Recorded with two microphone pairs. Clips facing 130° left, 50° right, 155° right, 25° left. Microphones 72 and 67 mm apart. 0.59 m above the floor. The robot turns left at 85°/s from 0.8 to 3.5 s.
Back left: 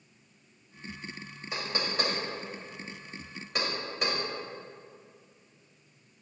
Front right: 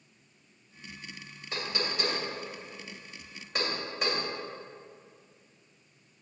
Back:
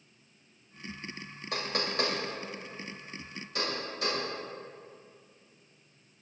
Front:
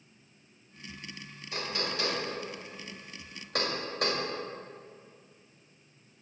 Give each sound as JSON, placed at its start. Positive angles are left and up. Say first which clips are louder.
{"t": 1.5, "sound": "knocking", "louder": "back left 1 dB, back 2 dB", "azimuth_deg": -150, "distance_m": 2.5}